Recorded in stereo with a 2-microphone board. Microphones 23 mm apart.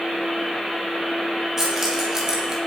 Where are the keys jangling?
20° right (ahead or behind), 5.5 m.